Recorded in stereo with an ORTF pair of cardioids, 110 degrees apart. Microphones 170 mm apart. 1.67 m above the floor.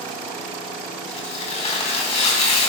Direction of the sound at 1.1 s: 40° left.